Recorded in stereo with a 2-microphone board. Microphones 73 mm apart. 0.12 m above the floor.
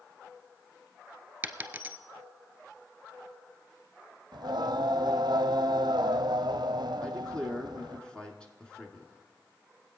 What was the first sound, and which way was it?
A dropped coin, 25° right (ahead or behind).